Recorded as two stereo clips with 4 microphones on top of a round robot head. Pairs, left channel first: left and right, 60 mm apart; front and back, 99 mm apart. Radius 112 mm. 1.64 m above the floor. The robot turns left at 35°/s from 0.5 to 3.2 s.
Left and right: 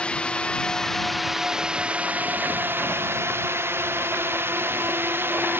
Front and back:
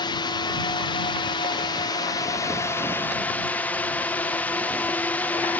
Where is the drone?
25° left; by 5.6 s 65° right.